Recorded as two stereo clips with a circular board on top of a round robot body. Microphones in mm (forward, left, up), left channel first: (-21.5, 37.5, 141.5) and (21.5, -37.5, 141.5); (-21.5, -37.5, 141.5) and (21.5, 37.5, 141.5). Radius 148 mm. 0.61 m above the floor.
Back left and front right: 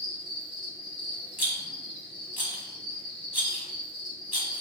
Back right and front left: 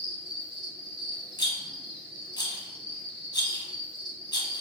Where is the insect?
40° right, 1.5 m.